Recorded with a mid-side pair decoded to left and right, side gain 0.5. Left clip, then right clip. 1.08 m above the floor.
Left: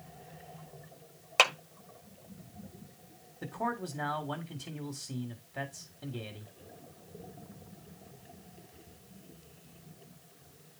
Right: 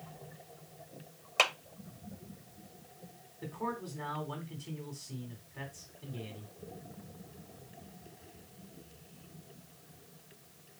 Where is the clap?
40° left, 1.6 m.